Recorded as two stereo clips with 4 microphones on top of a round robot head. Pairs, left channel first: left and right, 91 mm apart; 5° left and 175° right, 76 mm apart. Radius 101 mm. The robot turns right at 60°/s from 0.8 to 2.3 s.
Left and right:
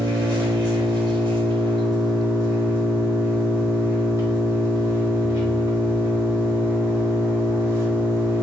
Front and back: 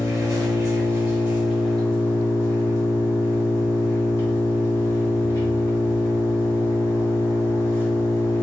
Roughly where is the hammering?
No hammering in this recording.